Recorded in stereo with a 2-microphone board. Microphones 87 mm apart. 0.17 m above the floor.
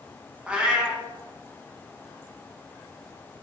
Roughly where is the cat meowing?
Centre.